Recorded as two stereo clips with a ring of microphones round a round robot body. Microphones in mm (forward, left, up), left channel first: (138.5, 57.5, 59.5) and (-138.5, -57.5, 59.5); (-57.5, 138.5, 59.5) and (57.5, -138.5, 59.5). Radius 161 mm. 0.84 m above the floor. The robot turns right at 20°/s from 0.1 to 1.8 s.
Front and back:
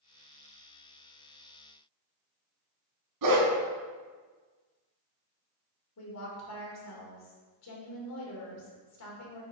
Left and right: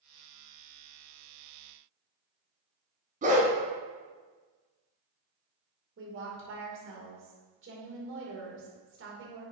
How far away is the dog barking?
About 2.0 m.